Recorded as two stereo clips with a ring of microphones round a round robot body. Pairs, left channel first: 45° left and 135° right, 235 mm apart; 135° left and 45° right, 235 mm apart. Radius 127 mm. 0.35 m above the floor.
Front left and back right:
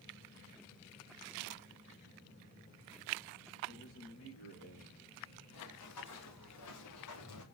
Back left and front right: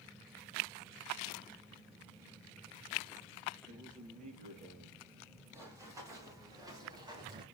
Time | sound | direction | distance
3.7 | a man speaking | 15° left | 8 m
5.5 | running footsteps | 35° left | 5.5 m